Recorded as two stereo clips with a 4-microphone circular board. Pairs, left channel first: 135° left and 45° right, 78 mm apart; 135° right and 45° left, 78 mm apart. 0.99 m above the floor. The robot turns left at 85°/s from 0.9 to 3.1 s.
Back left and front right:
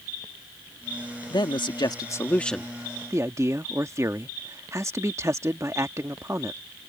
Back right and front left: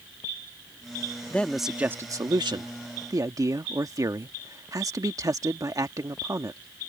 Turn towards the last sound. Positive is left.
turn(degrees=5)